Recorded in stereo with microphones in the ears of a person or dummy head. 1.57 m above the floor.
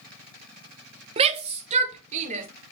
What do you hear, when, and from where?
1.2 s a shout: 35° right (ahead or behind), 1.1 m; by 2.5 s 40° right (ahead or behind), 2.5 m